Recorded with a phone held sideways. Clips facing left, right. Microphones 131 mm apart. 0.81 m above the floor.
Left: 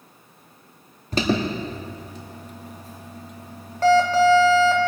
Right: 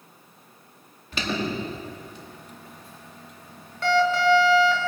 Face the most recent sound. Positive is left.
turn(degrees=40)  # may be behind; listen again after turning